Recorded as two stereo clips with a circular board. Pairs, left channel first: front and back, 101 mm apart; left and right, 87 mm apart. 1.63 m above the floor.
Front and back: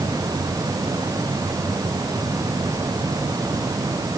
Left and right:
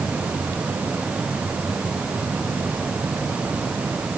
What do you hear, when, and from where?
Only background noise.